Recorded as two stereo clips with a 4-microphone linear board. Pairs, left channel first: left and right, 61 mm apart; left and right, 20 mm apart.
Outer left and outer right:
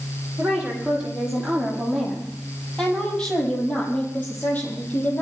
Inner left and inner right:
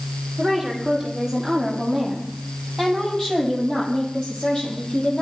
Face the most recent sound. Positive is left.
turn(degrees=35)  # may be behind; listen again after turning